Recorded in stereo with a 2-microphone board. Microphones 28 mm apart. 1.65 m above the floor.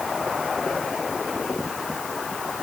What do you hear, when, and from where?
Only background noise.